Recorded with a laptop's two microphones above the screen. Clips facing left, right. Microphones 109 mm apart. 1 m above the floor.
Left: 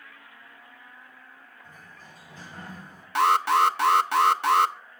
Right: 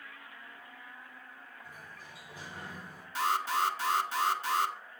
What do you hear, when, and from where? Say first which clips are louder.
1.6 s a sliding door: left 2 dB; 10° right (ahead or behind), 5 m
3.1 s an alarm: left 10 dB; 65° left (ahead or behind), 0.8 m